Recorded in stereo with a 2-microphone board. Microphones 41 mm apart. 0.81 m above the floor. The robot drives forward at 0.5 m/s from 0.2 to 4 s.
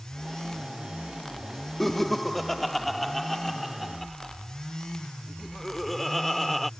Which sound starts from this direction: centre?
Laughter, at 1.8 s.